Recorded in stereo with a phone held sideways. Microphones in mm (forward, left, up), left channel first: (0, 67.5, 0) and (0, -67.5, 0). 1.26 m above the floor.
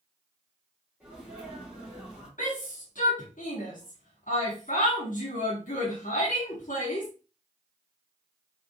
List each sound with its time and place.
1.0 s a sneeze: 5° right (ahead or behind), 2.5 m
2.4 s a shout: 75° left (ahead or behind), 1.5 m